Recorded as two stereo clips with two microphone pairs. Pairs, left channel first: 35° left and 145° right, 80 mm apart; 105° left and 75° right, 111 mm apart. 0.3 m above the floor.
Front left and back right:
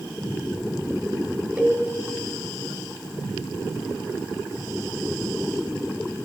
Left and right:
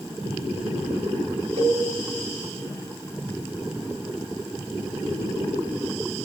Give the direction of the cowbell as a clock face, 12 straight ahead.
2 o'clock.